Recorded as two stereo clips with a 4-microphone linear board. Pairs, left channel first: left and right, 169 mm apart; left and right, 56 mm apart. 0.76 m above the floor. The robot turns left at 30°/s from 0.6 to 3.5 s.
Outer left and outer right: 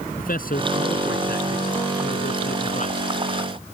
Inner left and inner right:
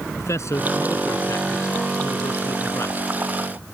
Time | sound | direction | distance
0.2 | a man speaking | 65° left (ahead or behind) | ?